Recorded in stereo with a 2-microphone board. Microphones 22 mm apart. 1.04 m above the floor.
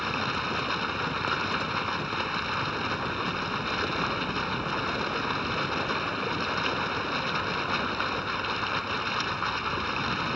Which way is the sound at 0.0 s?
5° right (ahead or behind).